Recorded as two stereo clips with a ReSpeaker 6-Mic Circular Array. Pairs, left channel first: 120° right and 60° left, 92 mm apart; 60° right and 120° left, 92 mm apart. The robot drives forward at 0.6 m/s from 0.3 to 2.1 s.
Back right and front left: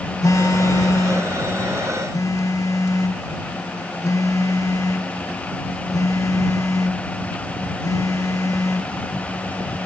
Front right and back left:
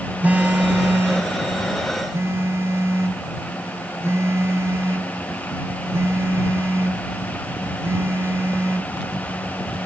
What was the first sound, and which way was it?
A phone buzzing, 170° right.